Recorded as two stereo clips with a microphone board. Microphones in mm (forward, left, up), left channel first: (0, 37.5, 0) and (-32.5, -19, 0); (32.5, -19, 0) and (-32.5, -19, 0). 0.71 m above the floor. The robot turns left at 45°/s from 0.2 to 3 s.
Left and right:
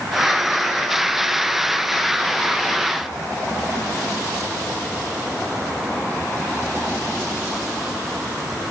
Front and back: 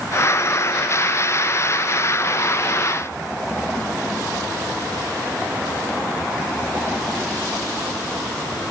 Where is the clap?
I don't hear a clap.